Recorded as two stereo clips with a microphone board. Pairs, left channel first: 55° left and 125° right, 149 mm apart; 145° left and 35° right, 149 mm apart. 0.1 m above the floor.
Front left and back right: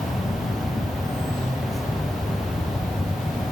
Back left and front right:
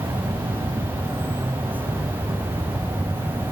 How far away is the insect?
About 0.9 m.